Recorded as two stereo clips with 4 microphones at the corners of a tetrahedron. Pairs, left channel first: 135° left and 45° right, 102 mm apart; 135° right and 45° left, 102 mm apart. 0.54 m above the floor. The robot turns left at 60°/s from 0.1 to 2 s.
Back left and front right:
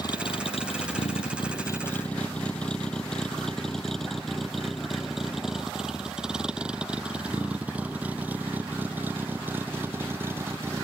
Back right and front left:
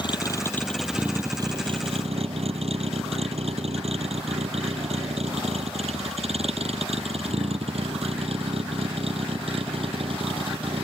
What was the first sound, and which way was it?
A vehicle, 175° right.